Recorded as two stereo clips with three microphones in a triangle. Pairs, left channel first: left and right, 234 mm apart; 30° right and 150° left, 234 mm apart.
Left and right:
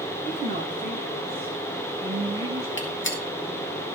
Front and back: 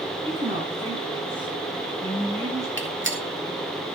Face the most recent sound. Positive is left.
turn(degrees=120)